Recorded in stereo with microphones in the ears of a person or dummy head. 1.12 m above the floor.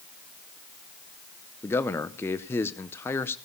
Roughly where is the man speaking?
Centre.